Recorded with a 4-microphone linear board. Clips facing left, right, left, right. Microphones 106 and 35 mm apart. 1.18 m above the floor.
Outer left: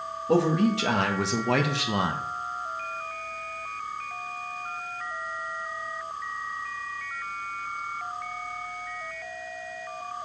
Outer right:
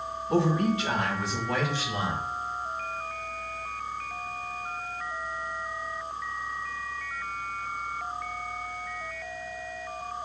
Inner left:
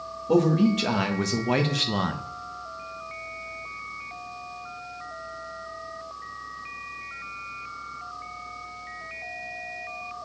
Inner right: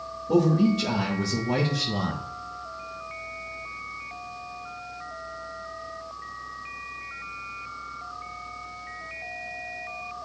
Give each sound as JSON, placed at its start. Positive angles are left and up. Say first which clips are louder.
{"t": 0.3, "sound": "a man speaking", "louder": "outer left 3 dB, even", "side_deg": 80, "distance_m": 2.0}